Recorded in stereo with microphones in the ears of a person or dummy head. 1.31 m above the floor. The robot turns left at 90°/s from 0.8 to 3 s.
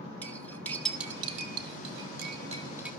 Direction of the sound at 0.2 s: 10° left (ahead or behind).